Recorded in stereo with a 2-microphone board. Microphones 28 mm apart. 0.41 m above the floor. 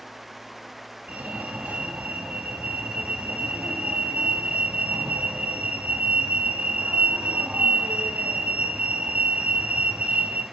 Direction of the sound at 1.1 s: 65° right (ahead or behind).